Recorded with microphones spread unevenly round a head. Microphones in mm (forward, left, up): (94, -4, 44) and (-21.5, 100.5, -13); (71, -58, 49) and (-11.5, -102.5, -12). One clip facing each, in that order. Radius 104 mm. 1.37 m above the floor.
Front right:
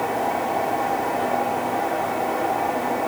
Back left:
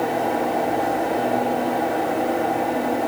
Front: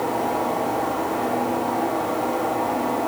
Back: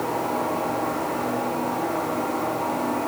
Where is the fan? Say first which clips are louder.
Back left 2 dB, front 2 dB; 90° left, 7 m.